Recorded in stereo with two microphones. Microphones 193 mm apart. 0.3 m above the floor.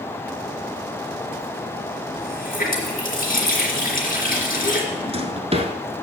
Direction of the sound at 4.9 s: 30° right (ahead or behind).